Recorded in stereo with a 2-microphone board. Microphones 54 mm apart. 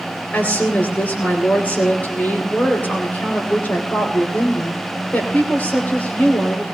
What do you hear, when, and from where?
0.3 s a woman speaking: 35° left (ahead or behind), 3 m